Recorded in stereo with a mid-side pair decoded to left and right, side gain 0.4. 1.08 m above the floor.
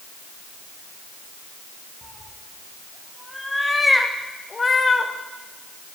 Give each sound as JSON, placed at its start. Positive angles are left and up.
{"t": 2.0, "sound": "a cat meowing", "azimuth_deg": -15, "distance_m": 3.0}